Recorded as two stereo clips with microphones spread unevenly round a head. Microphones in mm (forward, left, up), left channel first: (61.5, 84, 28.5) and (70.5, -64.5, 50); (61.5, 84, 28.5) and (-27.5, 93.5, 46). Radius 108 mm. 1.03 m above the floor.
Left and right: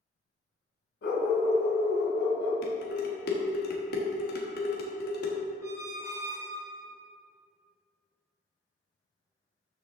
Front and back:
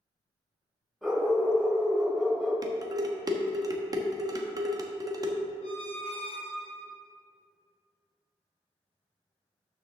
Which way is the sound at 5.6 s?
15° right.